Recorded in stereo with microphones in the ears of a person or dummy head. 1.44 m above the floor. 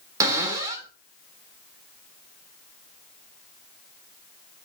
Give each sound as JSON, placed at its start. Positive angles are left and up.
{"t": 0.2, "sound": "a cupboard door", "side_deg": -20, "distance_m": 2.5}